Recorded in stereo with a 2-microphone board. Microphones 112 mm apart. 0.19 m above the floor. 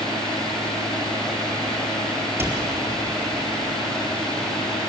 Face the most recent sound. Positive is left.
turn(degrees=-20)  # may be behind; listen again after turning